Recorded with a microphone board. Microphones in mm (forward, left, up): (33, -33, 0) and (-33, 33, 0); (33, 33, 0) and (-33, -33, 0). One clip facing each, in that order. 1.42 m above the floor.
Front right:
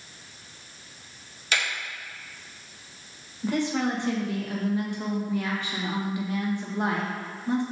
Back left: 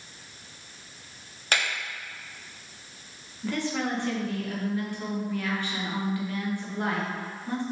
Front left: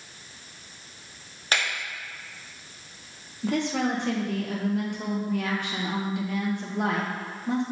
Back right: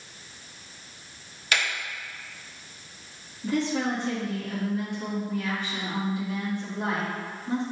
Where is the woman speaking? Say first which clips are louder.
Front right 3 dB, even; 25° left, 1.6 m.